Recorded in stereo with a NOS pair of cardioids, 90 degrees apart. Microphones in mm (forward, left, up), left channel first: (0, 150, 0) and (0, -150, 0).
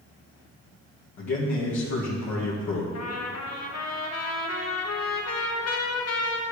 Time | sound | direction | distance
1.2 | a man speaking | 60° left | 1.9 m
2.9 | a trumpet | 55° left | 1.9 m